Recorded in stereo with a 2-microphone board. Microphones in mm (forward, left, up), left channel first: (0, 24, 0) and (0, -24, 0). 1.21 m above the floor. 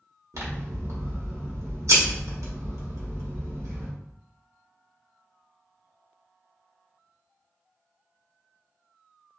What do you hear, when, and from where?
0.3 s scissors: 75° right (ahead or behind), 0.9 m